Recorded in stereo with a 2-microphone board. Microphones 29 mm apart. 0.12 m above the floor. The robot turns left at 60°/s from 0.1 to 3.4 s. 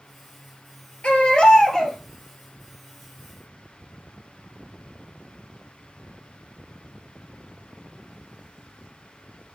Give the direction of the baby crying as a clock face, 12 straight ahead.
10 o'clock.